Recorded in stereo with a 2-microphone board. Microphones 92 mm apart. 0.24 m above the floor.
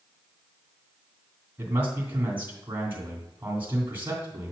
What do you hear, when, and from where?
1.6 s a man speaking: 25° right (ahead or behind), 2 m